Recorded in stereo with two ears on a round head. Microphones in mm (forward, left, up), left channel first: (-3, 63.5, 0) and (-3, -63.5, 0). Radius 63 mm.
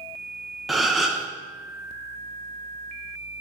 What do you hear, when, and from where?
0.7 s a gasp: centre (ahead or behind), 0.6 m